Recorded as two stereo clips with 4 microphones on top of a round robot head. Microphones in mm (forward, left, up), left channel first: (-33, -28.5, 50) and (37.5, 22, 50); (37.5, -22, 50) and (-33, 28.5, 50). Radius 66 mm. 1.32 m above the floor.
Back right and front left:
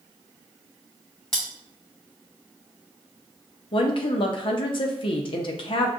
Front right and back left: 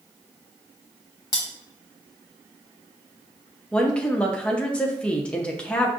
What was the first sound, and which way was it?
Cutlery clinking, 65° right.